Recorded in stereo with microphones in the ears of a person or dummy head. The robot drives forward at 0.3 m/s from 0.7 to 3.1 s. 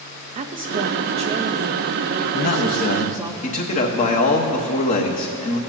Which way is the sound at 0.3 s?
40° right (ahead or behind).